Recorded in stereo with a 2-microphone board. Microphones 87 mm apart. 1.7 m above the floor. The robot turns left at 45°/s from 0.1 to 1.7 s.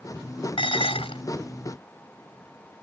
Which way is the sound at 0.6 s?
70° left (ahead or behind).